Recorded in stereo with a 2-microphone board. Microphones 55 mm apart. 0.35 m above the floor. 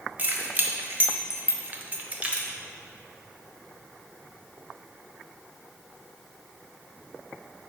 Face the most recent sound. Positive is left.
turn(degrees=-20)  # may be behind; listen again after turning